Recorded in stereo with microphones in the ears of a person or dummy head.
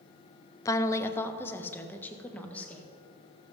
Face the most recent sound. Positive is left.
turn(degrees=10)  # may be behind; listen again after turning